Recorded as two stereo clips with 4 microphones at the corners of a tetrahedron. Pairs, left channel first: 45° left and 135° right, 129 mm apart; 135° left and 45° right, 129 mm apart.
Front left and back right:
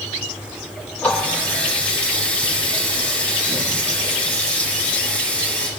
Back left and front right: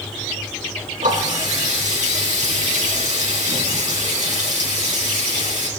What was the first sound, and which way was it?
A running tap, 35° right.